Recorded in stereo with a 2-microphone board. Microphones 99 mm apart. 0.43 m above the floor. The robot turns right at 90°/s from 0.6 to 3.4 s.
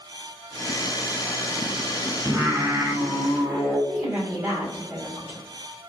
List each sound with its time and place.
2.2 s singing: 105° right, 1.7 m; by 3.8 s straight ahead, 1.7 m
3.9 s a woman speaking: 10° right (ahead or behind), 1.8 m